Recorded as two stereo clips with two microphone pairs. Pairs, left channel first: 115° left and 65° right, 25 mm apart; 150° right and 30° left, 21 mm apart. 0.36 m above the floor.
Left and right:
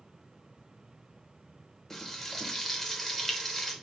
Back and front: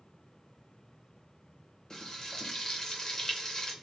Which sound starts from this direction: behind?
Frying, at 1.9 s.